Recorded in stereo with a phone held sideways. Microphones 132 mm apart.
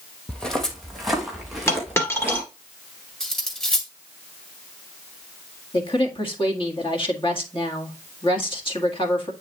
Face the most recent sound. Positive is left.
turn(degrees=40)  # may be behind; listen again after turning